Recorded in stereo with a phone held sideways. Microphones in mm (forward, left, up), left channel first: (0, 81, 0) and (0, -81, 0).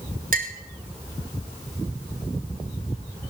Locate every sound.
0.3 s a clink: 60° right (ahead or behind), 1.2 m